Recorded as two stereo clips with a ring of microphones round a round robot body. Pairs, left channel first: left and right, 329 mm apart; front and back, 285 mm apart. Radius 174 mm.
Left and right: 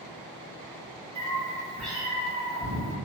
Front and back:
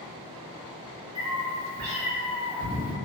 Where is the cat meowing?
150° right, 0.8 m; by 2.9 s 140° left, 1.0 m.